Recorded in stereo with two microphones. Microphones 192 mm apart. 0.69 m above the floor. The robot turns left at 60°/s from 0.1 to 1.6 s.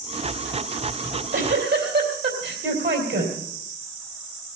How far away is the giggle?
About 3.5 m.